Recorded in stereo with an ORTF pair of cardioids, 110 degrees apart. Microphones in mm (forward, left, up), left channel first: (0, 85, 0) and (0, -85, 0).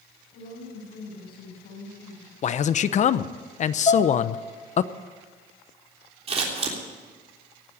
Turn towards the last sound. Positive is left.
turn(degrees=-35)